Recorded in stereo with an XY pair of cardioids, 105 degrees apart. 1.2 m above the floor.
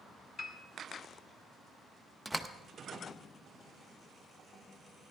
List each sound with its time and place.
0.4 s a piano: 45° left, 1.8 m
2.2 s a door slam: straight ahead, 0.8 m